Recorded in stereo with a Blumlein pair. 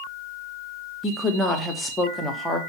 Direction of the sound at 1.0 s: 10° left.